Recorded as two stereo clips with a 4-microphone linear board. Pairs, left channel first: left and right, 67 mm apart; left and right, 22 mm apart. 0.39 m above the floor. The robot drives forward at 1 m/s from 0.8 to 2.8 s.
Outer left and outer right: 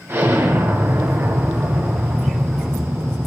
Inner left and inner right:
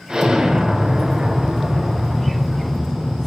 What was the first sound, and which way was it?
An explosion, 40° right (ahead or behind).